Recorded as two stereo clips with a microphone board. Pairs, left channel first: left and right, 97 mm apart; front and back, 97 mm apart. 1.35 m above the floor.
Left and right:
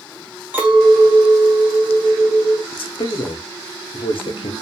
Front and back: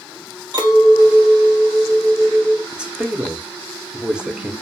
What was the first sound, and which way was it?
A clink, 155° right.